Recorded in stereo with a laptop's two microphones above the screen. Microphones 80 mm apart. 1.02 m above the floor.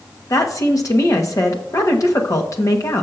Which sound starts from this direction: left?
A woman speaking, at 0.3 s.